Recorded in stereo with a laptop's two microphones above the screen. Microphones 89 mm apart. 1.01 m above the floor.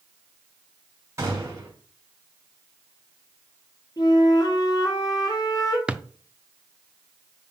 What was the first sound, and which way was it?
A gunshot, 35° right (ahead or behind).